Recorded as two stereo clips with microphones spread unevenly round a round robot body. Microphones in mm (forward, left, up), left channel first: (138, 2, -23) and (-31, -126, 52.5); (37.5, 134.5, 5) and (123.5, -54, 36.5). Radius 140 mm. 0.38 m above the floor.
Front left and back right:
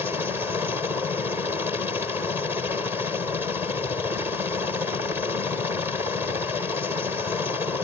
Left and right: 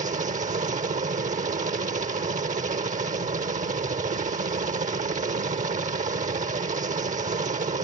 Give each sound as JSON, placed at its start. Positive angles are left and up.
{"t": 0.0, "sound": "a helicopter", "azimuth_deg": -40}